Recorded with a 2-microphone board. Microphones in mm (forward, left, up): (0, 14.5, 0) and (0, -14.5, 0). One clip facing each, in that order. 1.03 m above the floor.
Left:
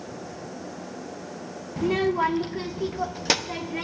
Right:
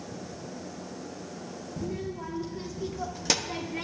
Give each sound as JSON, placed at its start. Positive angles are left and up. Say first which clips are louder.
{"t": 1.8, "sound": "a child speaking", "louder": "left 13 dB", "side_deg": 75, "distance_m": 0.5}